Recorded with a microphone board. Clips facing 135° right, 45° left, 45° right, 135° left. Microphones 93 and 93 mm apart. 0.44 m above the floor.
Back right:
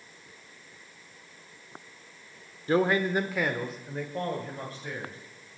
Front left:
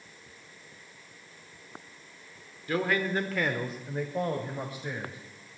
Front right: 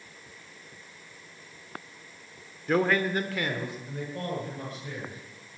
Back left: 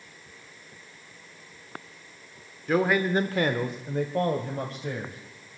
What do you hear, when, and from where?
2.7 s a man speaking: 130° right, 0.8 m; by 5.2 s 120° left, 2 m